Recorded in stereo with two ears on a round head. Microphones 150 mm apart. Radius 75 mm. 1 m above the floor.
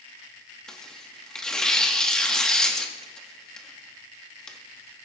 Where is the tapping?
I don't hear tapping.